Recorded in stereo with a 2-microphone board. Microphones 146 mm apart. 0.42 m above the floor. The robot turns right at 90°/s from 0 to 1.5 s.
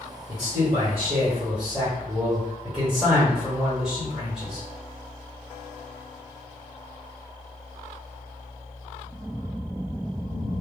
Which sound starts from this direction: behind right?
A man speaking, at 0.3 s.